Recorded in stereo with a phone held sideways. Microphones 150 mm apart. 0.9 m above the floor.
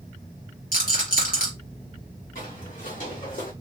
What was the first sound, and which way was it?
A rattle, 75° left (ahead or behind).